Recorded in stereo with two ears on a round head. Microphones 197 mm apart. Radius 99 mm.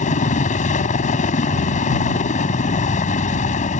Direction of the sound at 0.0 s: 35° left (ahead or behind).